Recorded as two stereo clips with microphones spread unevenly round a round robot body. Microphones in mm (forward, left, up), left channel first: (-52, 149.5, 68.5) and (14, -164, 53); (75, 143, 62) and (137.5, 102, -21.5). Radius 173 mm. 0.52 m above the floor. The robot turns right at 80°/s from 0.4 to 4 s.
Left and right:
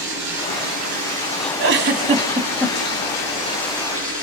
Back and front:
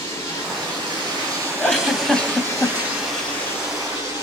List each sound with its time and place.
0.0 s running water: 70° right, 6.5 m; by 4.2 s 145° right, 6.5 m
1.6 s a giggle: 60° right, 1.7 m; by 2.8 s 35° left, 1.7 m